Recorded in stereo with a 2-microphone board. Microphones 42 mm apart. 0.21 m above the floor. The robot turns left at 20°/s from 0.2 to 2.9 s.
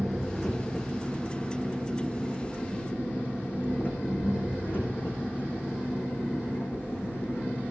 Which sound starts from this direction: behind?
An engine running, at 0.0 s.